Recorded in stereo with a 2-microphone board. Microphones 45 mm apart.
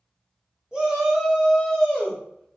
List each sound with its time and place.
0.7 s a shout: 25° right (ahead or behind), 1.1 m; by 2.2 s 20° left (ahead or behind), 1.2 m